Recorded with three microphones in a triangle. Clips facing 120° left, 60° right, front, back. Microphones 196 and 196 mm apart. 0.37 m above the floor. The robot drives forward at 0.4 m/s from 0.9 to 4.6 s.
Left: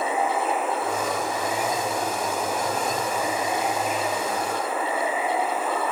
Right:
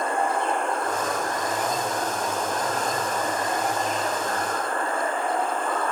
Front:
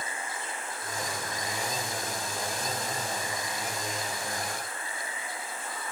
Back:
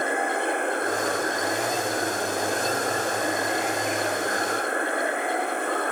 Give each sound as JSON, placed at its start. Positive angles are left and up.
{"t": 0.0, "sound": "running water", "azimuth_deg": -155}